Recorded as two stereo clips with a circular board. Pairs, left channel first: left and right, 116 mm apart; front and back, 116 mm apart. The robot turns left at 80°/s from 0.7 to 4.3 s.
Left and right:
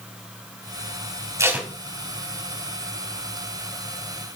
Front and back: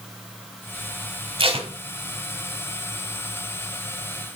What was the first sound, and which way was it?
Tape being pulled, 150° right.